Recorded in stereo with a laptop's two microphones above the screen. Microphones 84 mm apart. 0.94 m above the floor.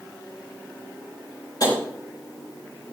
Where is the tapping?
55° left (ahead or behind), 4.5 m.